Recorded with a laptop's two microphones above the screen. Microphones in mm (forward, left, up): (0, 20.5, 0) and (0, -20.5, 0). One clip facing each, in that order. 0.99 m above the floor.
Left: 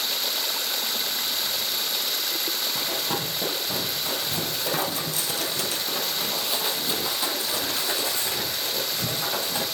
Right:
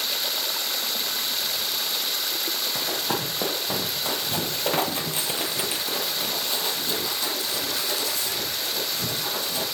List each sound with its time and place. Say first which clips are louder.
2.8 s running footsteps: right 1 dB; 65° right (ahead or behind), 2.5 m; by 9.6 s 35° left (ahead or behind), 3.5 m